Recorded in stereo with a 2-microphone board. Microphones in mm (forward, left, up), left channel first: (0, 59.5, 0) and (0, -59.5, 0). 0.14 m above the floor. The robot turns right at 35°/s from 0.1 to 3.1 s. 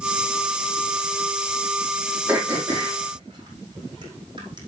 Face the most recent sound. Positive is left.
turn(degrees=-40)  # may be behind; listen again after turning